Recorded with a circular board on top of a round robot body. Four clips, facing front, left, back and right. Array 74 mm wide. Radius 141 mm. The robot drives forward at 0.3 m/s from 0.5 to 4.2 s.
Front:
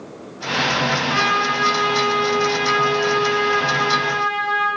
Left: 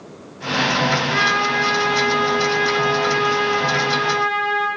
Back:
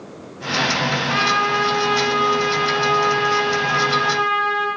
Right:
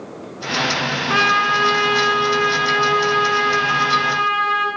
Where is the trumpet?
90° right, 7.5 m; by 4.7 s 100° right, 7.5 m.